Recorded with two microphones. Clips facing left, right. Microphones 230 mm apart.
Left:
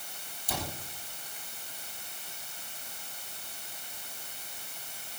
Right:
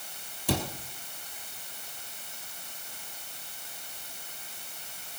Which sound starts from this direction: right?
A cupboard door, at 0.5 s.